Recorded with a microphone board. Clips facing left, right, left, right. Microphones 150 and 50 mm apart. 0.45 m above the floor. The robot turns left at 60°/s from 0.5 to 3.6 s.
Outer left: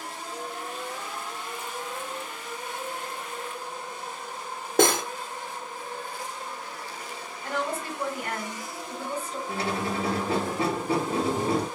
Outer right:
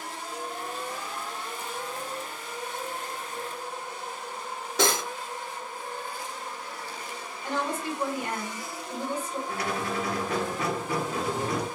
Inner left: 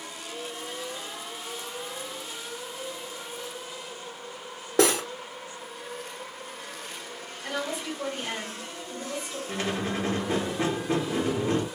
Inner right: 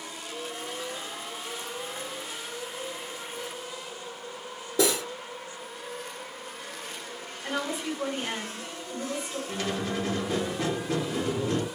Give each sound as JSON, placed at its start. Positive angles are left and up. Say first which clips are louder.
{"t": 4.8, "sound": "cutlery clinking", "louder": "outer left 5 dB, inner left 3 dB", "side_deg": 50, "distance_m": 0.6}
{"t": 7.4, "sound": "a woman speaking", "louder": "even, inner right 1 dB", "side_deg": -15, "distance_m": 2.0}
{"t": 9.5, "sound": "a squeak", "louder": "outer left 3 dB, inner left 2 dB", "side_deg": 30, "distance_m": 0.5}